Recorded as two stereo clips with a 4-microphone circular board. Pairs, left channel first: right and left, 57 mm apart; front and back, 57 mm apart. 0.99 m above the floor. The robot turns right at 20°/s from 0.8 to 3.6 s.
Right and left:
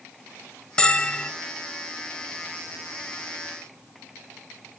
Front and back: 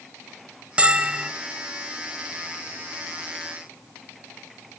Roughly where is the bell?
Behind right.